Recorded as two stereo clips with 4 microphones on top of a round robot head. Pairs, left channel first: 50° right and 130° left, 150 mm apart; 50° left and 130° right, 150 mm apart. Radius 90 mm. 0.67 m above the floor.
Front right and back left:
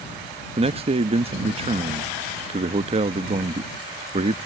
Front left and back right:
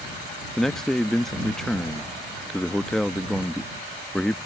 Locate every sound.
0.6 s a man speaking: 135° left